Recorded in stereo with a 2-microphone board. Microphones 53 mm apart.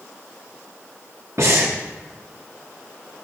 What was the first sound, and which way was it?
Breathing, 65° right (ahead or behind).